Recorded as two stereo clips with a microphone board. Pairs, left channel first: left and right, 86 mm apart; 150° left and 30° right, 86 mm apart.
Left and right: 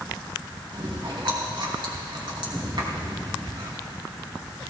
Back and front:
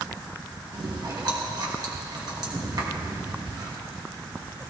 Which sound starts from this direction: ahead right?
Chewing, at 0.7 s.